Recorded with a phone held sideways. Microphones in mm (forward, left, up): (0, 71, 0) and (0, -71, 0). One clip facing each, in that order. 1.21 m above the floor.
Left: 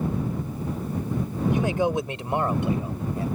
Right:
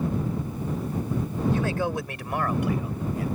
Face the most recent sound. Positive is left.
turn(degrees=30)  # may be behind; listen again after turning